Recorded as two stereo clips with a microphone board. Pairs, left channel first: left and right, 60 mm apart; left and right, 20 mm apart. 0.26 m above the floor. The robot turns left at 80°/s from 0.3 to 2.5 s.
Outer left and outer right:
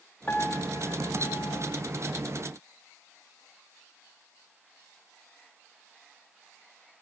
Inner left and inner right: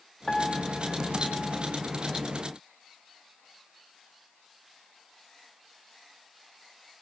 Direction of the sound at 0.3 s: 150° left.